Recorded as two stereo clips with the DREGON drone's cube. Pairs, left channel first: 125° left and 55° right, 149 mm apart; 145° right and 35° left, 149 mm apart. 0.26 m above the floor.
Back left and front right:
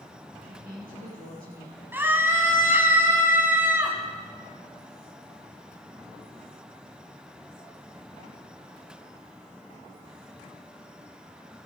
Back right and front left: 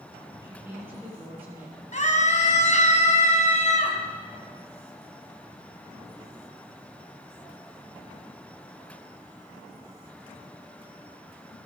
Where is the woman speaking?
40° right, 6.5 m.